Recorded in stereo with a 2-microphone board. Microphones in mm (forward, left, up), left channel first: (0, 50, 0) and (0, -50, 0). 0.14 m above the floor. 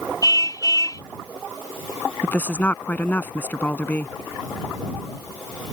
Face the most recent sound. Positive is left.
turn(degrees=20)  # may be behind; listen again after turning